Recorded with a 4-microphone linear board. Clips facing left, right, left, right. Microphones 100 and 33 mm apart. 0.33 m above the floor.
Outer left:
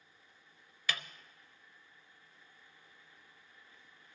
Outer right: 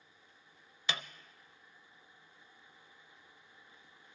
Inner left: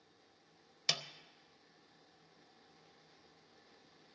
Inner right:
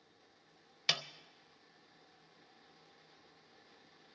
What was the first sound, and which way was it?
A snare drum, 25° right (ahead or behind).